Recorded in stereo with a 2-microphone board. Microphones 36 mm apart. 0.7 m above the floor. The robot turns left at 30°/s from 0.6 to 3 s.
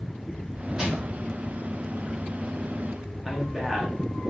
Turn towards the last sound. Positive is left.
turn(degrees=-20)  # may be behind; listen again after turning